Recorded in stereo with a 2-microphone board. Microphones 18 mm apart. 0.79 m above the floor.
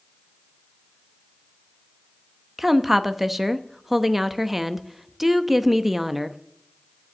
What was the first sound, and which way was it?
A woman speaking, 15° right (ahead or behind).